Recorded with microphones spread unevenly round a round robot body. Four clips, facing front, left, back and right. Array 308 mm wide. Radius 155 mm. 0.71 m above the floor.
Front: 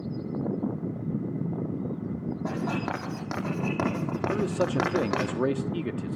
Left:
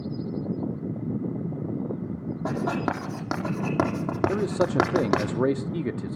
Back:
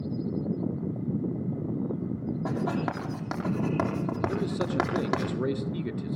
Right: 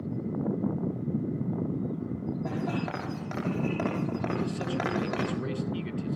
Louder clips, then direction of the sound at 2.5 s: Left 8 dB, back 1 dB; 90° left.